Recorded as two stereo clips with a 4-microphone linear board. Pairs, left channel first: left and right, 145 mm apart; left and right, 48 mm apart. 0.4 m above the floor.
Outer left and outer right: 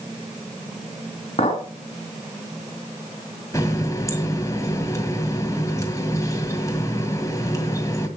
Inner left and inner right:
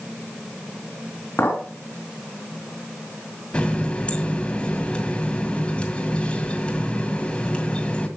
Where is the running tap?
25° left (ahead or behind), 2.0 m.